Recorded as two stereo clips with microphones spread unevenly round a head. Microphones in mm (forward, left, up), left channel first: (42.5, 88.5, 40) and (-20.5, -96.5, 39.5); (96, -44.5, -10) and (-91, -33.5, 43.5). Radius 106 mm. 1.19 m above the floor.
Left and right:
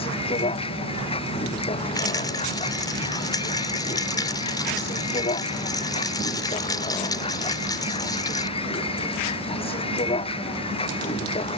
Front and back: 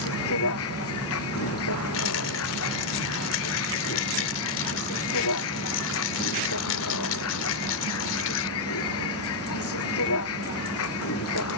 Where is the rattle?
Straight ahead.